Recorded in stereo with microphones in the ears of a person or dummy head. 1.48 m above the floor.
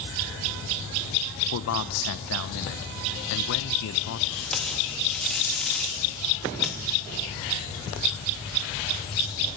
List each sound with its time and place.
1.5 s a man speaking: 70° left (ahead or behind), 1.0 m
4.3 s tape being pulled: 10° left (ahead or behind), 2.5 m